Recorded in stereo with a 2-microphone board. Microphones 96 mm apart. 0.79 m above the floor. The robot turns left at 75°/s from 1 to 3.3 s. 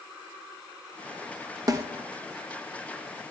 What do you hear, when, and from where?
1.7 s a snare drum: 35° right (ahead or behind), 0.8 m; by 1.9 s 30° right (ahead or behind), 0.8 m